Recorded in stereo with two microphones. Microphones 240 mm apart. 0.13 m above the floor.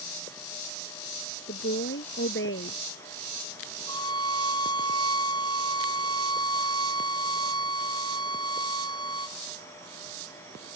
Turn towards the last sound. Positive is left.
turn(degrees=15)  # may be behind; listen again after turning